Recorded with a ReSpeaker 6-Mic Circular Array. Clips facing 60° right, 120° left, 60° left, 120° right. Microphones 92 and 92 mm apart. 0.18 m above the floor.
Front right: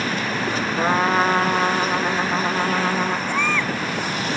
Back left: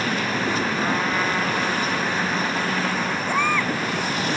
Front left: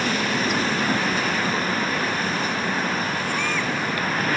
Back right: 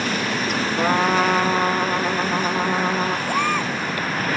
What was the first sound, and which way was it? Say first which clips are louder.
A trumpet: front right 4 dB, back right 5 dB; 110° right.